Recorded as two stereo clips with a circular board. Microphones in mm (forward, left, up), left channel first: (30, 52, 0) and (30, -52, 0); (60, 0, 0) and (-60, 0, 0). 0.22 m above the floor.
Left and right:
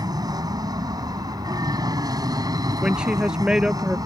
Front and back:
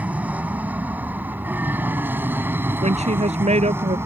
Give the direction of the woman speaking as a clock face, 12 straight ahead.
6 o'clock.